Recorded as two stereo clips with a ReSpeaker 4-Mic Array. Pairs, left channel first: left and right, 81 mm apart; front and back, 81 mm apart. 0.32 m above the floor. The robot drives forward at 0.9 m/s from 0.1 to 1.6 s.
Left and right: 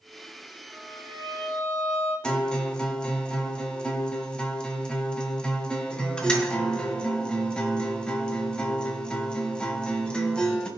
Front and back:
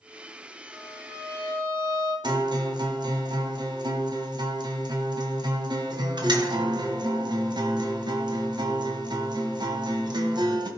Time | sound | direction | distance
0.7 | a violin | 125° right | 6.5 m
2.2 | a guitar | 170° left | 1.8 m